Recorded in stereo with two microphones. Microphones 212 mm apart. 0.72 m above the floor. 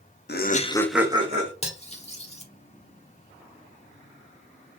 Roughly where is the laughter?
Left.